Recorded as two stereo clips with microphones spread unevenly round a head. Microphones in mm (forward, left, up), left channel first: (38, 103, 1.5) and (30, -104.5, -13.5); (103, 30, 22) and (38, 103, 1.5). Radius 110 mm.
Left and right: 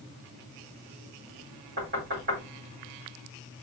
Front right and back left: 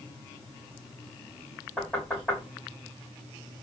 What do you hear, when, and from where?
1.8 s knocking: 140° right, 3 m